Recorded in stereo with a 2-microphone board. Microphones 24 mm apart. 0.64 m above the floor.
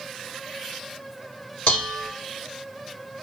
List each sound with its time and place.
1.7 s dishes clattering: 65° left (ahead or behind), 1.7 m